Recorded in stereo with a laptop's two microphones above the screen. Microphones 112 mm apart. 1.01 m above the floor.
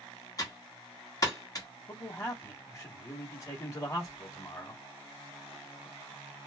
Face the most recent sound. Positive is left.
turn(degrees=30)  # may be behind; listen again after turning